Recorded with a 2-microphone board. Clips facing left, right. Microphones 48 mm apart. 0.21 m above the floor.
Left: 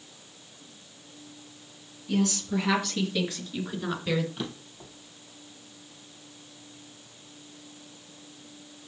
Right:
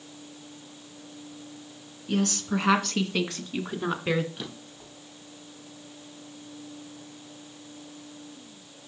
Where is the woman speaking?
50° right (ahead or behind), 3 m; by 4.3 s 35° right (ahead or behind), 2.5 m.